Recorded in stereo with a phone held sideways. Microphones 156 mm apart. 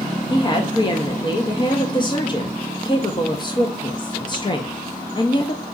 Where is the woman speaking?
30° left (ahead or behind), 0.7 m.